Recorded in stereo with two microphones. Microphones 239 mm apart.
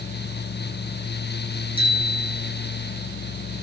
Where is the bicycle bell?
25° right (ahead or behind), 4.5 m.